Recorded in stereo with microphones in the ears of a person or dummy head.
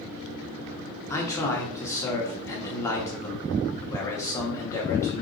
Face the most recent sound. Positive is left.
turn(degrees=15)  # may be behind; listen again after turning